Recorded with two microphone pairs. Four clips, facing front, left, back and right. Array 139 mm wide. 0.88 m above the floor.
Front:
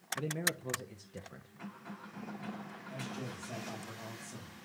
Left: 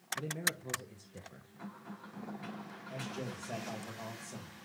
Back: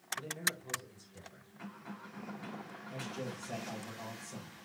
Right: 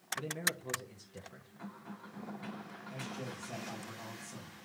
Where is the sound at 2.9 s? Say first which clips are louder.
Left 2 dB, back 1 dB; 105° left, 5 m.